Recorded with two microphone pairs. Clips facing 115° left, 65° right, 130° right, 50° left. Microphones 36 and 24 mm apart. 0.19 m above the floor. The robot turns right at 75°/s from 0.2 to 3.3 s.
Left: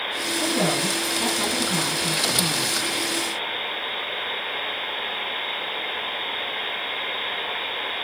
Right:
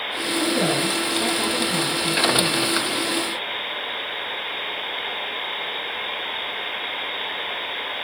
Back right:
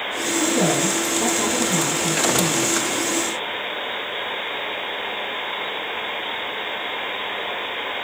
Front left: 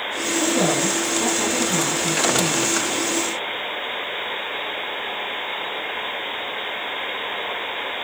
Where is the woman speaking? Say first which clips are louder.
Right 2 dB, even; 45° left, 1.7 m; by 2.8 s 130° right, 1.7 m.